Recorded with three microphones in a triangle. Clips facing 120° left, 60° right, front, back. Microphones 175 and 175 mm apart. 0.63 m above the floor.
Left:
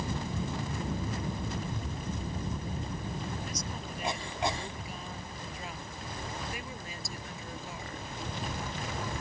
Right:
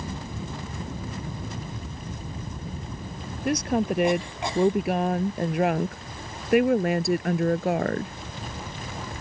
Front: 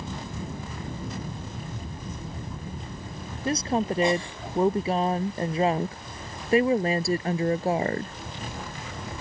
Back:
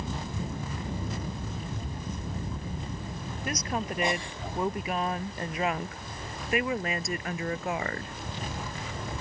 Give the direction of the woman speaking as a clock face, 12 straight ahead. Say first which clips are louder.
Right 16 dB, front 8 dB; 2 o'clock.